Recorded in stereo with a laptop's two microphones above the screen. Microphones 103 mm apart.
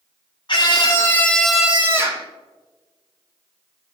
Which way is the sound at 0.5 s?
50° left (ahead or behind).